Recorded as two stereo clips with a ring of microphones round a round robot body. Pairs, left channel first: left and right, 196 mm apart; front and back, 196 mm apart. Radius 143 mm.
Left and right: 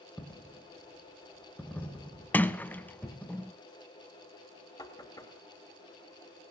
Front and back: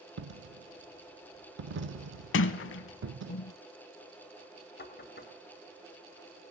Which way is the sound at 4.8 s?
20° left.